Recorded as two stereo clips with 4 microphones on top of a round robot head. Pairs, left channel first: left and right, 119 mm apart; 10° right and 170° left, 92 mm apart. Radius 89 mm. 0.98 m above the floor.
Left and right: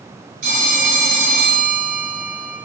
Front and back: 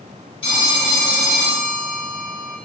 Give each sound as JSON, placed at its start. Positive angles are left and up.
{"t": 0.4, "sound": "a phone ringing", "azimuth_deg": -65, "distance_m": 0.9}